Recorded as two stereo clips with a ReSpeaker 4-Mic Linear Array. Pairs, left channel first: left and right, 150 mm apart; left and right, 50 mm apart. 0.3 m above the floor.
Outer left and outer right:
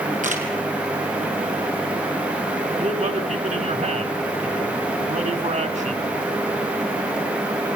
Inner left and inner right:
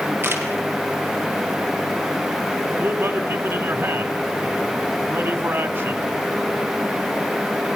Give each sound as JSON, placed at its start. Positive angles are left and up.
{"t": 0.2, "sound": "a camera shutter", "side_deg": -55, "distance_m": 3.0}
{"t": 2.8, "sound": "a man speaking", "side_deg": -50, "distance_m": 2.0}